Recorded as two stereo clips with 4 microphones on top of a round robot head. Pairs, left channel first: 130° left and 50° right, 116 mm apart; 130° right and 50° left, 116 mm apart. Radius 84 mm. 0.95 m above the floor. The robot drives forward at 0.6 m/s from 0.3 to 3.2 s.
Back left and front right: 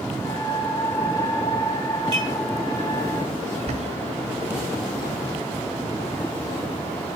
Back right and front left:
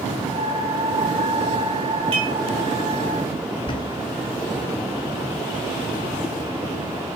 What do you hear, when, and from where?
2.1 s dishes clattering: 5° left, 5 m
3.5 s a bird: 85° right, 1.3 m